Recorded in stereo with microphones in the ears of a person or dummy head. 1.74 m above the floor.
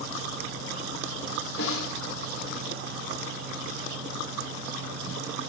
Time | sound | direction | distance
1.6 | a snare drum | 80° left | 1.8 m